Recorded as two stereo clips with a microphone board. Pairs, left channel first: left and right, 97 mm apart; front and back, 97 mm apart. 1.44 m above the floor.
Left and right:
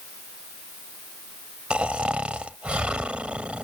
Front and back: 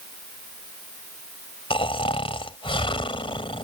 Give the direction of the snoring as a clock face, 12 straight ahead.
12 o'clock.